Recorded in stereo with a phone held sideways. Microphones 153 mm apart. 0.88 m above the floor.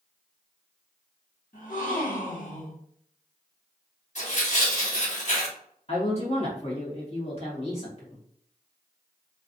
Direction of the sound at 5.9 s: 45° left (ahead or behind).